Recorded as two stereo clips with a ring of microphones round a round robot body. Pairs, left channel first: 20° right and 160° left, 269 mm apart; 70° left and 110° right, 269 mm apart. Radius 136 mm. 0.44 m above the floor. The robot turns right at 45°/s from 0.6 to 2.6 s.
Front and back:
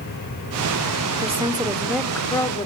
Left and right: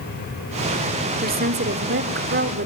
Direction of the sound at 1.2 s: 150° right.